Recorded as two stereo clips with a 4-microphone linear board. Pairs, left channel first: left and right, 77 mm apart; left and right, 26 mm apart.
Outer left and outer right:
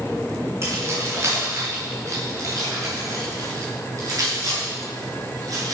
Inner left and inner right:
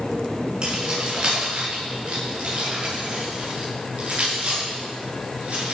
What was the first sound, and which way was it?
Keys jangling, 35° right (ahead or behind).